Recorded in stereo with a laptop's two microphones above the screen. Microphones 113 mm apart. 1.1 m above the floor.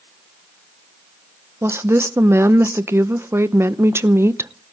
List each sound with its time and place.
1.6 s a woman speaking: 20° right (ahead or behind), 0.6 m